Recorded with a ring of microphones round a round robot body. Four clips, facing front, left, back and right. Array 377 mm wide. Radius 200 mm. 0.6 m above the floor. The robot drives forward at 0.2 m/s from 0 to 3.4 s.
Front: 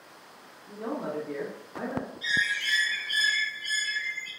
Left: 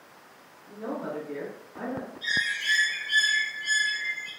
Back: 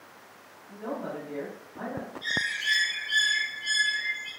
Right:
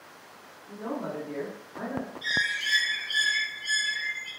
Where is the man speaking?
5° left, 1.1 m.